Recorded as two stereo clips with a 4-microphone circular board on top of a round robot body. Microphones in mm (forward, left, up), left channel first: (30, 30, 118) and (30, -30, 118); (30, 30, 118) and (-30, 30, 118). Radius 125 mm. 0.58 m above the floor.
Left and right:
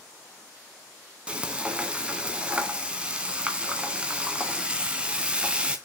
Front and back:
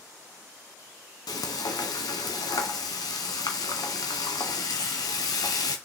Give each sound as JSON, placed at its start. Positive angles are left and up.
{"t": 1.3, "sound": "frying", "azimuth_deg": -15, "distance_m": 2.0}